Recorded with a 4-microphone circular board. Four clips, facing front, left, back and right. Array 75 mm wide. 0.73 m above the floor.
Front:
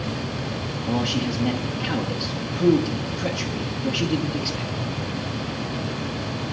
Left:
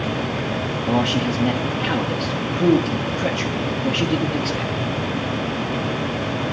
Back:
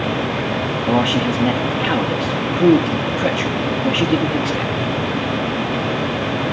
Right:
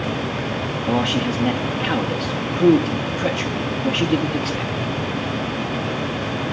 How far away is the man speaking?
About 1.1 m.